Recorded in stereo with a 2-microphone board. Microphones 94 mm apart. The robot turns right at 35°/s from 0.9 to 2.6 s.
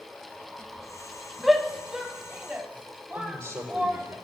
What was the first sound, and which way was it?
A shout, centre (ahead or behind).